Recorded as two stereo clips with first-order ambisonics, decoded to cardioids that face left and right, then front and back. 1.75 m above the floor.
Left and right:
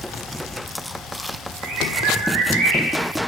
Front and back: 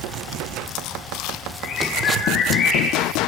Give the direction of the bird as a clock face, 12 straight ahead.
2 o'clock.